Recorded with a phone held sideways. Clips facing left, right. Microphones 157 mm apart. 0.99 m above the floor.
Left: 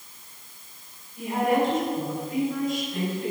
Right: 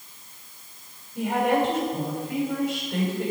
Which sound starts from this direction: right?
A woman speaking, at 1.1 s.